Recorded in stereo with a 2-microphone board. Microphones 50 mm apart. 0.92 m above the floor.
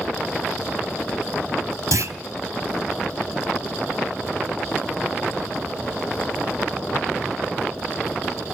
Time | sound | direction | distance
1.9 | a clunk | 65° right (ahead or behind) | 1.2 m